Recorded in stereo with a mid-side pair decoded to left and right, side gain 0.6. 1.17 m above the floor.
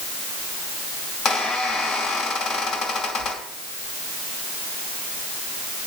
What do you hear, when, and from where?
1.2 s a squeak: 50° left, 2.5 m